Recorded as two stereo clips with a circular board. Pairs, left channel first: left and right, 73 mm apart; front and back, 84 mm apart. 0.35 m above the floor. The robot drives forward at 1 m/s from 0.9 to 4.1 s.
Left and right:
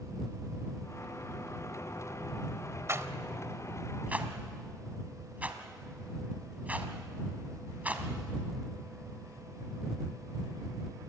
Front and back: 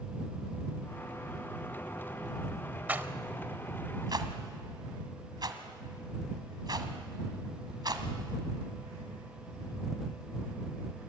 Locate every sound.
2.9 s a rattle: 115° right, 1.1 m; by 8.1 s 155° right, 1.9 m